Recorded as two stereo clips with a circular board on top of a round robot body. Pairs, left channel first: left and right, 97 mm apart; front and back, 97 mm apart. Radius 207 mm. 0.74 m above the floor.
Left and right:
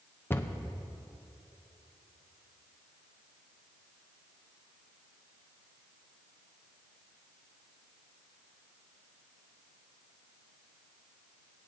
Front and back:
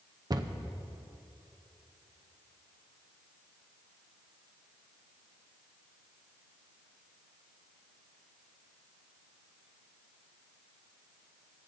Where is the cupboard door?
150° left, 0.8 m.